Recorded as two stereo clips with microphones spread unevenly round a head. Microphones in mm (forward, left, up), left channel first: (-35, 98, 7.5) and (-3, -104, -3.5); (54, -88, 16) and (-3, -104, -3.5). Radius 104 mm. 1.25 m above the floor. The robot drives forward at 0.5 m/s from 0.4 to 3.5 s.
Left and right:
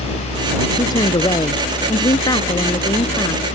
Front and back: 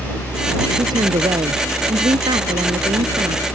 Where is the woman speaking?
170° left.